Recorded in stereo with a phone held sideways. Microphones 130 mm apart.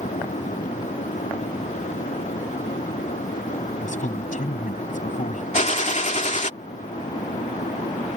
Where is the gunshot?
70° left (ahead or behind).